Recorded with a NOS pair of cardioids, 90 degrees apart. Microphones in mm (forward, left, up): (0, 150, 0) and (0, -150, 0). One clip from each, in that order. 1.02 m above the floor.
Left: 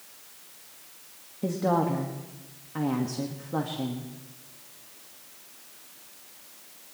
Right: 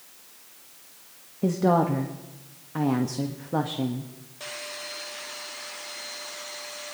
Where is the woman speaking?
25° right, 1.4 m.